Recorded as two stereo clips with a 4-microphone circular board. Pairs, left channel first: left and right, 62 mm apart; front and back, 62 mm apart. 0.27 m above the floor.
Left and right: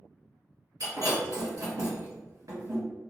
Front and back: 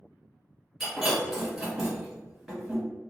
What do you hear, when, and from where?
0.8 s breaking glass: 95° right, 1.9 m